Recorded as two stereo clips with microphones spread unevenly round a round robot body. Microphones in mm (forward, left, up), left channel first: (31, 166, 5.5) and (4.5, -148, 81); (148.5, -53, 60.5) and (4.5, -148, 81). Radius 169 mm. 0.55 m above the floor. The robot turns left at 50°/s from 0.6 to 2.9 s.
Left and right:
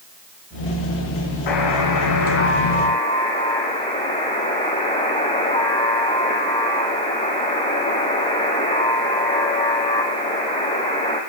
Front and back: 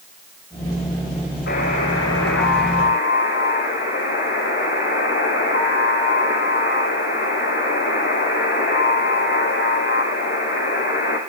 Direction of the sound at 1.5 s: 80° left.